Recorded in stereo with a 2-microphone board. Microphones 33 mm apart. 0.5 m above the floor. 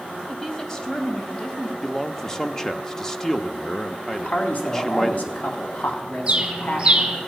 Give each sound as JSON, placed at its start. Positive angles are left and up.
{"t": 0.3, "sound": "a woman speaking", "side_deg": 15, "distance_m": 2.5}
{"t": 1.8, "sound": "a man speaking", "side_deg": 15, "distance_m": 0.8}
{"t": 4.1, "sound": "a man speaking", "side_deg": 60, "distance_m": 3.5}
{"t": 6.3, "sound": "a bird", "side_deg": -30, "distance_m": 2.5}